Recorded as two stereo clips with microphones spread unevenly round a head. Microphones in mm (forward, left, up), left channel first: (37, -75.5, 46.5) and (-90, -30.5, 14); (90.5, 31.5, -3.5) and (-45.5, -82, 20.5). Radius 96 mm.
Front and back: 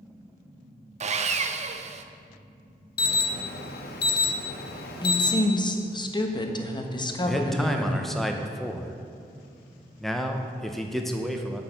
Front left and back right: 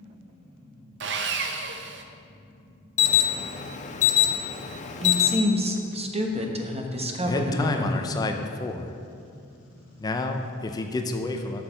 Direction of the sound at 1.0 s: 175° right.